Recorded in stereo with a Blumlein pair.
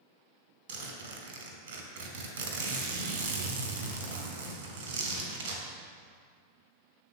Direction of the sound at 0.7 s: 60° right.